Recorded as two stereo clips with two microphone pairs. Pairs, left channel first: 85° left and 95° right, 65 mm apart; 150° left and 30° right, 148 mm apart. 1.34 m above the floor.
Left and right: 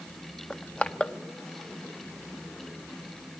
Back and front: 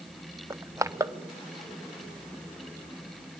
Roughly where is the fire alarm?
No fire alarm in this recording.